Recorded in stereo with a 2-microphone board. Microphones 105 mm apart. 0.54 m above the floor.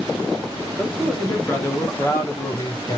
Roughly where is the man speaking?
Centre.